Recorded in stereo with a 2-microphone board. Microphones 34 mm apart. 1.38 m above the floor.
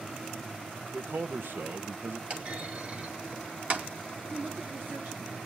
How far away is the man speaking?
About 1.1 m.